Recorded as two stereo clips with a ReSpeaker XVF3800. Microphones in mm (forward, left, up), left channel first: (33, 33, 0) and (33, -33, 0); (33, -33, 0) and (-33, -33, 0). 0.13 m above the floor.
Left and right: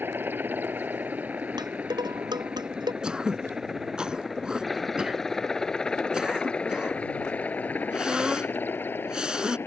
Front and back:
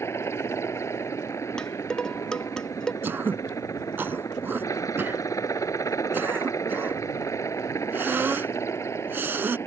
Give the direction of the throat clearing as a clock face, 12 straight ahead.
5 o'clock.